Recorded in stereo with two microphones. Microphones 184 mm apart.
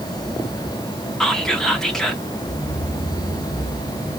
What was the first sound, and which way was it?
Whispering, 5° left (ahead or behind).